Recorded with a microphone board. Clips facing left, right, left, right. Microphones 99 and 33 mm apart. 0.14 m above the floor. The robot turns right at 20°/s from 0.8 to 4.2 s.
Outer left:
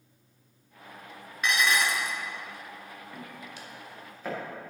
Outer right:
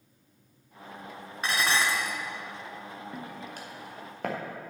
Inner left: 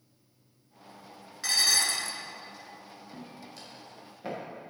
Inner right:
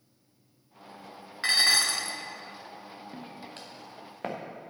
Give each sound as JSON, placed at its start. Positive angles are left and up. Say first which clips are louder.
{"t": 1.4, "sound": "dishes clattering", "louder": "outer left 1 dB, inner right 3 dB", "side_deg": -40, "distance_m": 1.2}
{"t": 3.1, "sound": "footsteps", "louder": "outer right 3 dB, even", "side_deg": -30, "distance_m": 2.5}